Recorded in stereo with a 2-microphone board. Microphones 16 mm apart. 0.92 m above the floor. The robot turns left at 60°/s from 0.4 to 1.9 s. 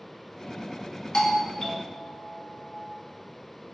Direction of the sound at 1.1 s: 110° left.